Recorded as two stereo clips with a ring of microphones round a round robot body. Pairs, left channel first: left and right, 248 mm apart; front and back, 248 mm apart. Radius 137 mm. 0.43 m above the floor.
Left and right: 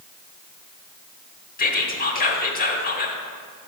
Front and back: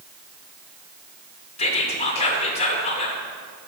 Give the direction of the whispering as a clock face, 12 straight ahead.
10 o'clock.